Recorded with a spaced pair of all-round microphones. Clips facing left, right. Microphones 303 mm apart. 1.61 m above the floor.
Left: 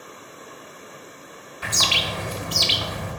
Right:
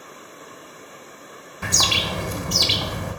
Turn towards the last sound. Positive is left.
turn(degrees=-55)  # may be behind; listen again after turning